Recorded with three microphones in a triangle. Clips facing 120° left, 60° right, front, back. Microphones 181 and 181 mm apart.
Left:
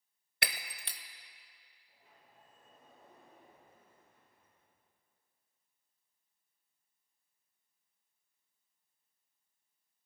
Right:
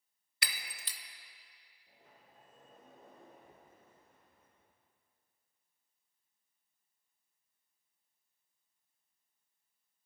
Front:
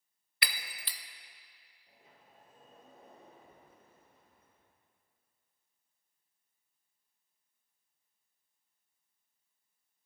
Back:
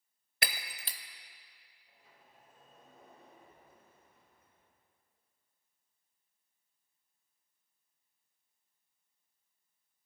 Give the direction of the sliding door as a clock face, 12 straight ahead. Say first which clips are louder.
Right 3 dB, front 2 dB; 2 o'clock.